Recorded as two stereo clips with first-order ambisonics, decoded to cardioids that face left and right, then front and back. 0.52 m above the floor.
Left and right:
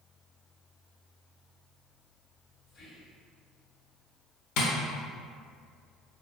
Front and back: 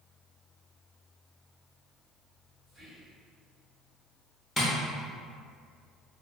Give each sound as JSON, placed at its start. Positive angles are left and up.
{"t": 2.7, "sound": "whispering", "azimuth_deg": 85, "distance_m": 1.6}
{"t": 4.6, "sound": "tapping", "azimuth_deg": 75, "distance_m": 0.7}